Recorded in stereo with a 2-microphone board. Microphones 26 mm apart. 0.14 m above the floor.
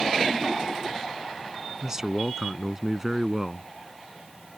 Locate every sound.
1.8 s a man speaking: 25° right (ahead or behind)